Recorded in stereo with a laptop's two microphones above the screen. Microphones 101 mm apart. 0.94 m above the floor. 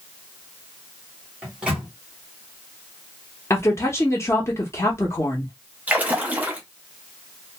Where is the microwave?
10° right (ahead or behind), 1.0 m.